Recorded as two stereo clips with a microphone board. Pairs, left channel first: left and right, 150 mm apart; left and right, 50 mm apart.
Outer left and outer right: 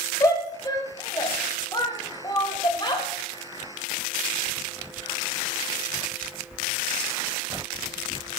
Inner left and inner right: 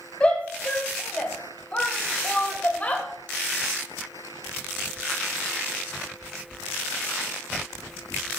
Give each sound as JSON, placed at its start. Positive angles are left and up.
{"t": 0.2, "sound": "a shout", "side_deg": 25, "distance_m": 3.5}